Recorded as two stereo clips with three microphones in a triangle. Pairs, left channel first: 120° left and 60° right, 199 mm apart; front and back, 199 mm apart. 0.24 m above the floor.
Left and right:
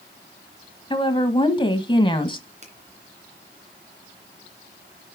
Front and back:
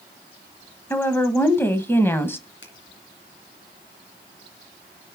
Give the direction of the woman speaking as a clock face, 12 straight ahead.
10 o'clock.